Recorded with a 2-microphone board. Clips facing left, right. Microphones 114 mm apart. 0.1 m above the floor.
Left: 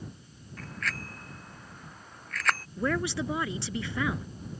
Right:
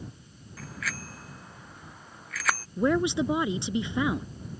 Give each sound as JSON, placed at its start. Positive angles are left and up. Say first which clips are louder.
{"t": 0.6, "sound": "a bicycle bell", "louder": "even", "side_deg": -5}
{"t": 2.8, "sound": "a woman speaking", "louder": "right 8 dB", "side_deg": -20}